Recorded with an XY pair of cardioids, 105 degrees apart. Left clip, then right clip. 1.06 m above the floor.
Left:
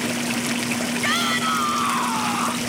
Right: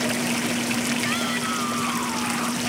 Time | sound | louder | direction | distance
1.0 | a shout | left 4 dB | 40° left | ?